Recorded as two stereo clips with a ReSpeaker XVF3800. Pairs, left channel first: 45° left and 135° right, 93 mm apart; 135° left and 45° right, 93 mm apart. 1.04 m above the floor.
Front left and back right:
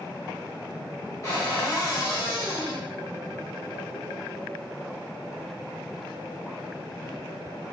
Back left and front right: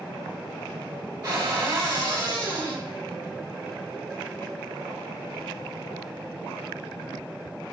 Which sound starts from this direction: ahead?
A cupboard door, at 1.2 s.